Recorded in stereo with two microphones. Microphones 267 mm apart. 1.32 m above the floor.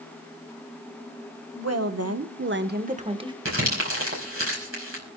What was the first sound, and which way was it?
A woman speaking, 75° right (ahead or behind).